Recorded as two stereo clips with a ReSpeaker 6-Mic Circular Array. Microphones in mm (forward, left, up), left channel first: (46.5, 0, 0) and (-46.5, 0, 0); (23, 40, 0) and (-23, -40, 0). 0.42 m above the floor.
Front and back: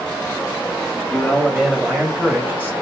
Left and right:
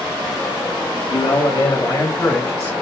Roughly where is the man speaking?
Left.